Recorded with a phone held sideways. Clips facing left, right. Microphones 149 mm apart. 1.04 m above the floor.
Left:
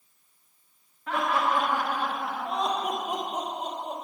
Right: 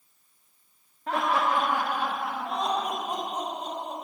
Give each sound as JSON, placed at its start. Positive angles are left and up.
{"t": 1.1, "sound": "laughter", "side_deg": -40, "distance_m": 1.1}